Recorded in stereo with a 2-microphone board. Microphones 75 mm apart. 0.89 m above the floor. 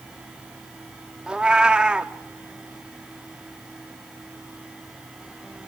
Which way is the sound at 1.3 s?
10° right (ahead or behind).